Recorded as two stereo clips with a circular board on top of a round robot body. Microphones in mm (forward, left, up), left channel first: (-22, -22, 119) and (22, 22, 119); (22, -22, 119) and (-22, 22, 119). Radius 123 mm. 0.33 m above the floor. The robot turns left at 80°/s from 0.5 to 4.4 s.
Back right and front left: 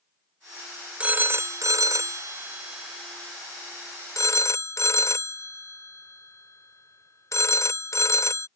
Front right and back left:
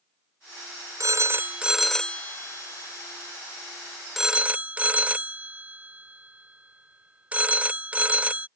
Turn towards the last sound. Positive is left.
turn(degrees=-160)